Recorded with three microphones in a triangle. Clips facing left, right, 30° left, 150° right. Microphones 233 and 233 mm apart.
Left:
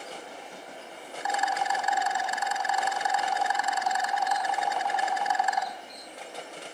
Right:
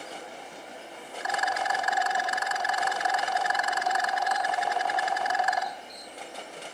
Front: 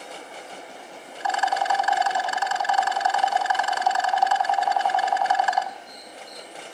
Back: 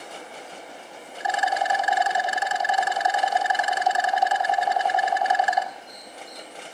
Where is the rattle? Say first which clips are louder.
Left 1 dB, even; 75° right, 1.3 m.